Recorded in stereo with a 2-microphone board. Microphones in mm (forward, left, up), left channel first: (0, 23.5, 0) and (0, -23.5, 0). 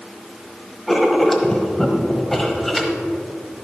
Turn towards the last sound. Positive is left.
turn(degrees=5)  # may be behind; listen again after turning